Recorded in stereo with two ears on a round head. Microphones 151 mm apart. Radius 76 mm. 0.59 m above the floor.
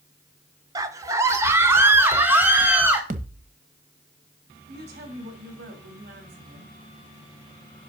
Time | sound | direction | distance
0.8 | a scream | 20° right (ahead or behind) | 1.1 m
3.1 | a thud | 50° right (ahead or behind) | 1.0 m
4.7 | a woman speaking | 65° right (ahead or behind) | 3.5 m